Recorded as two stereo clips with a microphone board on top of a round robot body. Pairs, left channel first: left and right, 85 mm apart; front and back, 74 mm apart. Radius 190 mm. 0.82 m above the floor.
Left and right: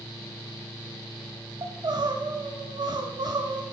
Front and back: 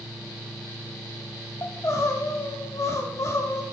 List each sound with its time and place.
1.6 s crying: 50° right, 0.7 m